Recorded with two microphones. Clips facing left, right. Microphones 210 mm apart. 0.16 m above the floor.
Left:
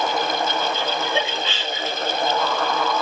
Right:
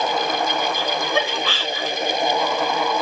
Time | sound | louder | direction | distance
0.8 | laughter | right 1 dB | 25° left (ahead or behind) | 1.3 m